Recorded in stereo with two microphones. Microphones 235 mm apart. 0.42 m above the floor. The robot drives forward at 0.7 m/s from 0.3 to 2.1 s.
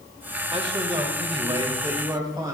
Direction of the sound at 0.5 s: 25° right (ahead or behind).